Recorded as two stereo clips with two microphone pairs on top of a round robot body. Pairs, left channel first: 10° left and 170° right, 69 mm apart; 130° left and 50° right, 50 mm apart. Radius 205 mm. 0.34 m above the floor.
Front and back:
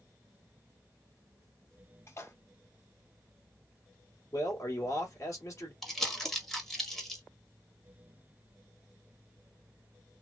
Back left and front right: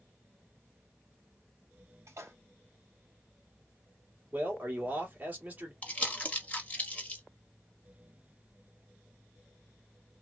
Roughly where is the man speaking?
Ahead.